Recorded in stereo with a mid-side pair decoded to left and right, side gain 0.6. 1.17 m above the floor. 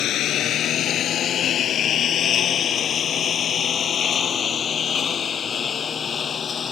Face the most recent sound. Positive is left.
turn(degrees=30)